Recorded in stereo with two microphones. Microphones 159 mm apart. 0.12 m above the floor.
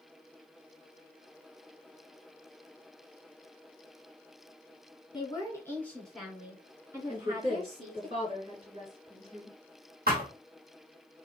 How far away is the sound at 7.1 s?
About 2 m.